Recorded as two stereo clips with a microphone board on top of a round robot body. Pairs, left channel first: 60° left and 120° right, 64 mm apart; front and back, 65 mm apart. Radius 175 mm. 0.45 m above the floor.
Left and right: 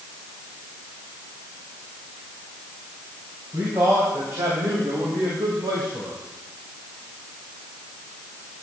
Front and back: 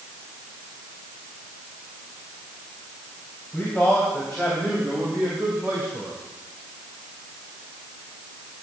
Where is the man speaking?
70° right, 3.5 m; by 6.2 s 130° right, 2.5 m.